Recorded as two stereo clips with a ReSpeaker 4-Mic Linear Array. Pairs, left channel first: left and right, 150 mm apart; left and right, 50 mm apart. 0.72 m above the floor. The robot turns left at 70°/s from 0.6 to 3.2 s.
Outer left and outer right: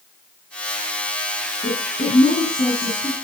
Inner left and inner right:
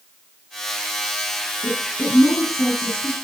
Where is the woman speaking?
120° left, 10 m; by 3.1 s 10° left, 10 m.